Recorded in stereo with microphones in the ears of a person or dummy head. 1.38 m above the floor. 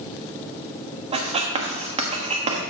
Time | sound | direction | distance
1.1 | writing | 35° right (ahead or behind) | 1.3 m